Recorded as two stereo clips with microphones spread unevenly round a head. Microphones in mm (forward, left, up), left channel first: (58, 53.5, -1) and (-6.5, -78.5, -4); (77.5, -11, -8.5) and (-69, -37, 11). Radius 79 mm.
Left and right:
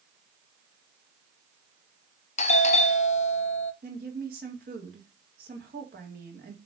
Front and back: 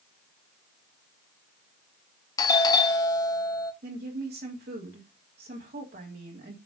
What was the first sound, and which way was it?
A doorbell, 55° left.